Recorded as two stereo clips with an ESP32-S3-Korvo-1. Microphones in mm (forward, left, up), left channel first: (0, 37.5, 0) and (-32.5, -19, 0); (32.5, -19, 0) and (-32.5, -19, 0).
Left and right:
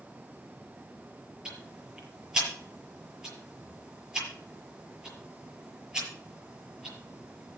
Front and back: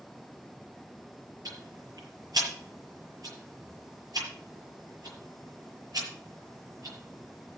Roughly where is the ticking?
Behind.